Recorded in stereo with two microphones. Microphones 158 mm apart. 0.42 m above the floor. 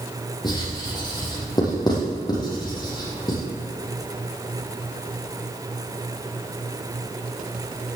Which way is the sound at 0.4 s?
25° left (ahead or behind).